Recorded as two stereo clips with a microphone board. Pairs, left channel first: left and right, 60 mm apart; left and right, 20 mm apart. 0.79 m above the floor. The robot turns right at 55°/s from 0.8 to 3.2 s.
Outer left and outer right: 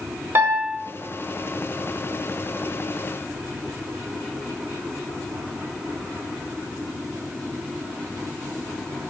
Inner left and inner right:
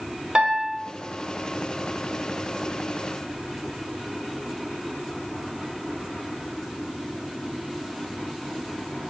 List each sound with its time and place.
0.3 s a piano: 45° right (ahead or behind), 0.7 m